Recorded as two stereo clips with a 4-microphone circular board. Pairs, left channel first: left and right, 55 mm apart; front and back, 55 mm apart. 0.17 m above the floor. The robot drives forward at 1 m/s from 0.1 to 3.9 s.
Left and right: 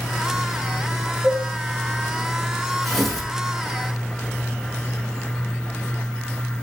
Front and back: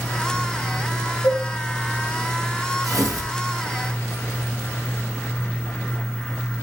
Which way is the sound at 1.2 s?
15° right.